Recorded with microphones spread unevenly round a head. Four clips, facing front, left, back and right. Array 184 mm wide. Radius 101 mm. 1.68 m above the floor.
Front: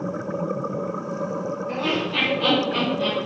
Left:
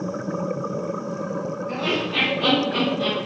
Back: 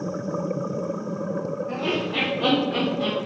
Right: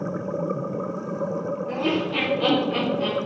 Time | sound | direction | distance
1.7 | laughter | 100° right | 1.0 m